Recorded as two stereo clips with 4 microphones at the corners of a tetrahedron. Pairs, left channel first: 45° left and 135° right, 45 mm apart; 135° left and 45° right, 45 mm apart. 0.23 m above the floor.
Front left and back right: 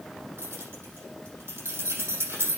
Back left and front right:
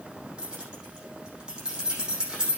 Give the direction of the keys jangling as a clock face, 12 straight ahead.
4 o'clock.